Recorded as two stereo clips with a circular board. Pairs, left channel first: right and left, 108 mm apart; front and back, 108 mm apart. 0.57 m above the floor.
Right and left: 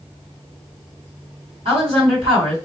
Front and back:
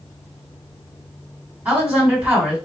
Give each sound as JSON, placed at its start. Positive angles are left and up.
{"t": 1.6, "sound": "a woman speaking", "azimuth_deg": 110, "distance_m": 2.5}